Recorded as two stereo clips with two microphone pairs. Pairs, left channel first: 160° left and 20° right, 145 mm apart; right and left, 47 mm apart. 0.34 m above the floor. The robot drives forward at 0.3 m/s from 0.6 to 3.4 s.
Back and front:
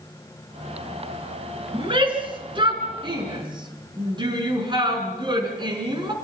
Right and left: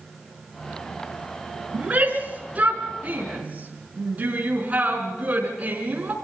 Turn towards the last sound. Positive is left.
turn(degrees=40)